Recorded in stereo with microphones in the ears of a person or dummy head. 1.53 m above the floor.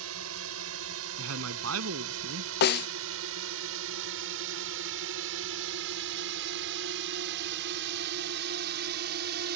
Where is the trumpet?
I don't hear a trumpet.